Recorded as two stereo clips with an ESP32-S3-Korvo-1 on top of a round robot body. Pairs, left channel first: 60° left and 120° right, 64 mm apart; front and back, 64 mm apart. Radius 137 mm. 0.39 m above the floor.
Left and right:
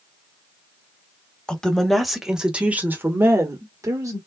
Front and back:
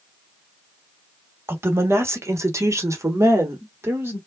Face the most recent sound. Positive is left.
turn(degrees=-135)